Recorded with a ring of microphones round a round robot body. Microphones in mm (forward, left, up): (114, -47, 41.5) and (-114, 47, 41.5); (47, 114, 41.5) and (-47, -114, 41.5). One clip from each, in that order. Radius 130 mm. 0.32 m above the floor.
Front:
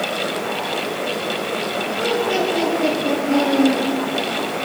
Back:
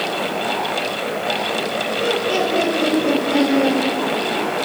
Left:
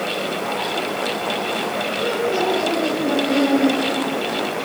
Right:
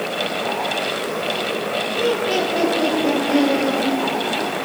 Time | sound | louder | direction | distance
1.9 | laughter | even, right 2 dB | 115° right | 9.5 m